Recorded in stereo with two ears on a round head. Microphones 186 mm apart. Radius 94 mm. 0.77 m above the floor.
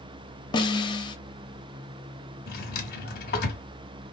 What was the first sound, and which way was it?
A snare drum, 20° left (ahead or behind).